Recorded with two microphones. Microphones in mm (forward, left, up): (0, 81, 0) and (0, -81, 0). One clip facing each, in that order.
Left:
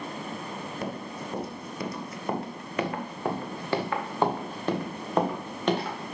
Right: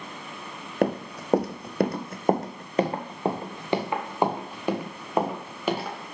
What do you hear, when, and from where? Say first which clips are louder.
0.8 s running footsteps: right 13 dB; 65° right (ahead or behind), 0.8 m; by 6.1 s 5° right (ahead or behind), 3 m